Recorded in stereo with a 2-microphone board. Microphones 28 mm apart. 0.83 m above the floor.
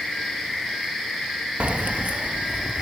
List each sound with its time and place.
1.6 s keys jangling: 55° right (ahead or behind)